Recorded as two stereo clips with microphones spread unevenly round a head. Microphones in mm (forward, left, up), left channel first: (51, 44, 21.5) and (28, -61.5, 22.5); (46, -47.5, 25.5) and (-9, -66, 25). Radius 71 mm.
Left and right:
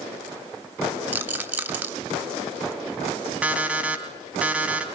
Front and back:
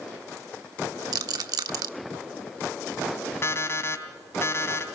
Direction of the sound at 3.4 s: 25° right.